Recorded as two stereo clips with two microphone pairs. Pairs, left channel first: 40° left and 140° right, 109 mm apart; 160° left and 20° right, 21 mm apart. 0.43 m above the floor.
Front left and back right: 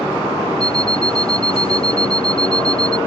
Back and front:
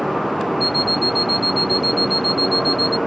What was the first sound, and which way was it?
An alarm clock, 60° left.